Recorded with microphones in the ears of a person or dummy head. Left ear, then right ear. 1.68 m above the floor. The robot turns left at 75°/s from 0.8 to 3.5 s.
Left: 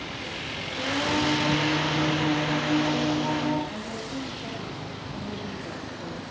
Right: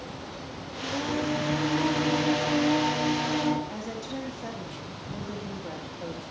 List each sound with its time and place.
0.8 s singing: 55° left, 6 m; by 3.6 s 145° right, 6 m
3.7 s a woman speaking: 80° right, 3 m